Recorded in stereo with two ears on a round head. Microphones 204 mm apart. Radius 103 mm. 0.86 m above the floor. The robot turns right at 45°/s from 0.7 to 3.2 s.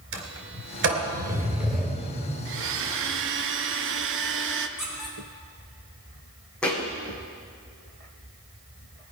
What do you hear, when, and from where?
0.1 s a sliding door: 60° right (ahead or behind), 3 m; by 2.4 s 10° left (ahead or behind), 3 m
2.5 s a blender: 105° right, 0.9 m; by 4.7 s 70° right, 0.9 m
4.8 s a squeak: centre (ahead or behind), 3.5 m
6.6 s a thud: 5° left (ahead or behind), 3 m